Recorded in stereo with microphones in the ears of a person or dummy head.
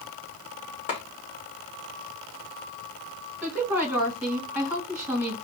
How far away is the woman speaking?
About 1.6 m.